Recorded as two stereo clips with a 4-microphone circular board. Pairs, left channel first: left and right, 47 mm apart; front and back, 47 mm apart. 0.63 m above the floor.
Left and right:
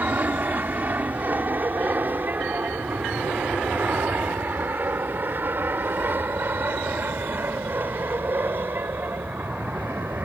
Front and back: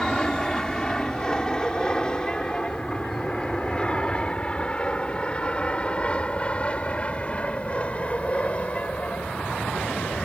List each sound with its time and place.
0.0 s an aircraft: 70° right; by 10.2 s 55° right